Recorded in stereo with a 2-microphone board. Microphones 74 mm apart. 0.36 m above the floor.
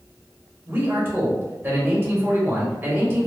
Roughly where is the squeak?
I don't hear a squeak.